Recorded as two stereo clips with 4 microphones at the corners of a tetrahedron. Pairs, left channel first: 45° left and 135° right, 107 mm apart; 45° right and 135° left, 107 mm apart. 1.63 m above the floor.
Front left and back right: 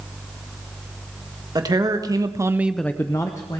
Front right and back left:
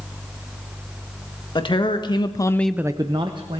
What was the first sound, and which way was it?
A man speaking, 85° right.